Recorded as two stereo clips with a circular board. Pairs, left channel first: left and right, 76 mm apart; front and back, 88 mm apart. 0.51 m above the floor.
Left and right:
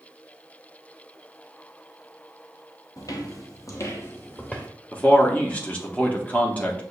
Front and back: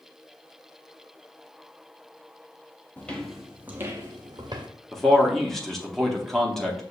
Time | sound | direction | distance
3.0 | footsteps | 65° left | 0.8 m
4.9 | a man speaking | 80° left | 0.7 m